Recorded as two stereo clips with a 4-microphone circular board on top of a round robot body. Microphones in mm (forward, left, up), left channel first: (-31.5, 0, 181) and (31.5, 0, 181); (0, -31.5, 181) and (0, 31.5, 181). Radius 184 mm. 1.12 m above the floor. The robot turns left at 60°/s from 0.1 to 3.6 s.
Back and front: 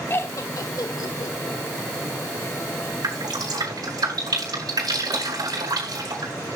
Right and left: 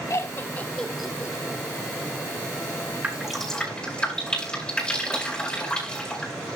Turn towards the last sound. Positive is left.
turn(degrees=-15)